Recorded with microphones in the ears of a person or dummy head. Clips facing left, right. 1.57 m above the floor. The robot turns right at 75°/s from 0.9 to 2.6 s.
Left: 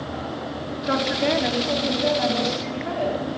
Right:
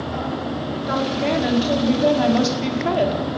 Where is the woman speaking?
145° left, 4 m; by 3.3 s 90° right, 4 m.